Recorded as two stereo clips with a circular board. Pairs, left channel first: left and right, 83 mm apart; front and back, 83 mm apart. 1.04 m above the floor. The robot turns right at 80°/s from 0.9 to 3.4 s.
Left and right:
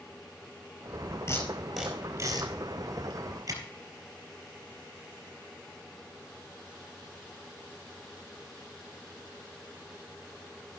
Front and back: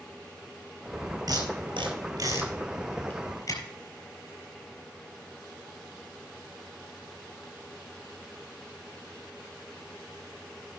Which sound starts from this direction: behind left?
Tape being pulled, at 1.3 s.